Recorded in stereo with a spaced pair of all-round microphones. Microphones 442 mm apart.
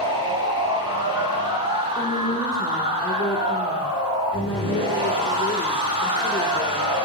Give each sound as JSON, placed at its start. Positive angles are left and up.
{"t": 0.0, "sound": "a machine running", "side_deg": -10, "distance_m": 9.0}
{"t": 1.9, "sound": "a woman speaking", "side_deg": 20, "distance_m": 4.0}